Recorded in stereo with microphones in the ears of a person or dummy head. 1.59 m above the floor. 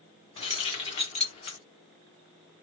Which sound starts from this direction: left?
Keys jangling, at 0.4 s.